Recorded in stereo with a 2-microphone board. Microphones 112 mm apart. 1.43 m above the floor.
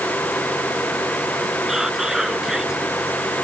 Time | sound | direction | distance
1.7 | whispering | 5° right (ahead or behind) | ?